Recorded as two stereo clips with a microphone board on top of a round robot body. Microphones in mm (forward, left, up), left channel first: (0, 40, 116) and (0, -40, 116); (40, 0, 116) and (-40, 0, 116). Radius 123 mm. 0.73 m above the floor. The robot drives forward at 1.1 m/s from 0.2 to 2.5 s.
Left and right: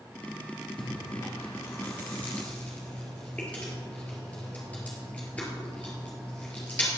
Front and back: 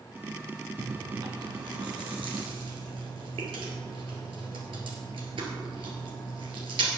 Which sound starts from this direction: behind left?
Chewing, at 0.8 s.